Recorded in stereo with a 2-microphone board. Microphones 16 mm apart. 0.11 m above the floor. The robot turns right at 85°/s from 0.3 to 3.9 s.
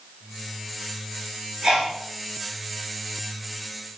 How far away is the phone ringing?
No phone ringing in this recording.